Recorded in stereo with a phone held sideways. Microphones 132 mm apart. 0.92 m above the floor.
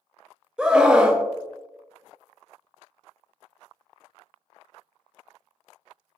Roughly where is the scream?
Centre.